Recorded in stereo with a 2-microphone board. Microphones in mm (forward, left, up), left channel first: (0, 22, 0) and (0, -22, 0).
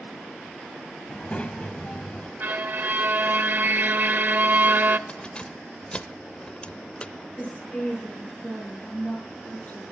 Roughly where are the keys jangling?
Left.